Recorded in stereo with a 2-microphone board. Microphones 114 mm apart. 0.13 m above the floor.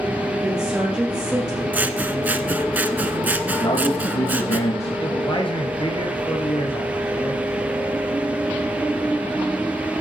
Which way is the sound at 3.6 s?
70° left (ahead or behind).